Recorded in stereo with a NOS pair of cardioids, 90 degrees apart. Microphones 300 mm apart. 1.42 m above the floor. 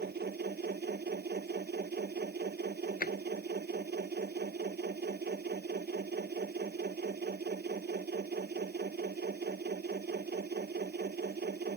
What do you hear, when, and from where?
0.0 s a machine running: 35° right
3.0 s a drawer: 30° left